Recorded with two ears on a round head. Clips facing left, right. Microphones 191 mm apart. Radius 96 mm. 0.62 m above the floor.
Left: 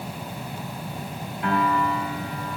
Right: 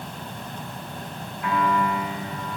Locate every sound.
1.4 s a piano: 55° left (ahead or behind), 5 m